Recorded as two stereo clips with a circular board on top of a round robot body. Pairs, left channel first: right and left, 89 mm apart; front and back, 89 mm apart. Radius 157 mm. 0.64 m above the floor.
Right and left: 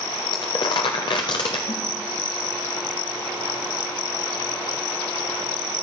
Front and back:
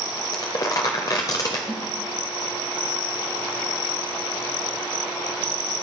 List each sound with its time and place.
0.3 s crumpling: 50° right, 0.5 m
1.7 s a snare drum: 105° right, 1.4 m